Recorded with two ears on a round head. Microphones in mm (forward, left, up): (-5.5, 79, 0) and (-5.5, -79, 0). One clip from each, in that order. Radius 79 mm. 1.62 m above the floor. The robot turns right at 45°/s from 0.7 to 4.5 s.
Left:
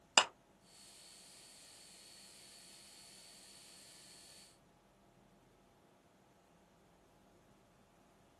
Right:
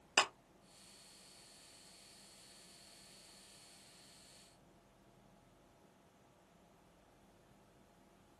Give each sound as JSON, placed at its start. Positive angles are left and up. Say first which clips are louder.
{"t": 0.2, "sound": "a clap", "louder": "left 2 dB", "side_deg": 35, "distance_m": 0.6}